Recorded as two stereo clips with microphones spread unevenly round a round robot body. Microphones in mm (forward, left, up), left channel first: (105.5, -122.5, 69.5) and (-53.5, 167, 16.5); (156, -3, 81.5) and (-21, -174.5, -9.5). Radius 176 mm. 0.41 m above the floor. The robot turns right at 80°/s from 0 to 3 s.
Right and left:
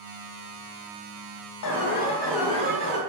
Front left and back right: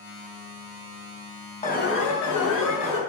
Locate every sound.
1.6 s an alarm: 25° right, 4 m; by 3.0 s 85° left, 4 m